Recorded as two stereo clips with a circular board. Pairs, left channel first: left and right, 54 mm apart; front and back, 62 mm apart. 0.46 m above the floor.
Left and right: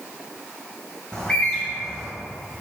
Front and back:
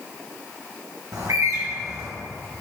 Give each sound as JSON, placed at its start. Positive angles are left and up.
{"t": 1.1, "sound": "a bird", "azimuth_deg": 165, "distance_m": 1.4}